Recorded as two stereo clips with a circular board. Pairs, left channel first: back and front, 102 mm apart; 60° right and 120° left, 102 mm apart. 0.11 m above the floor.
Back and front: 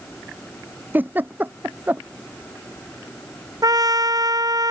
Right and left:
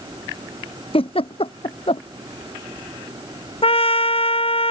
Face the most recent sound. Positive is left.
turn(degrees=-50)